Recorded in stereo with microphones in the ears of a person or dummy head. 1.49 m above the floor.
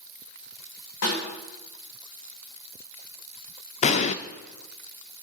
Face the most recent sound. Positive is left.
turn(degrees=35)  # may be behind; listen again after turning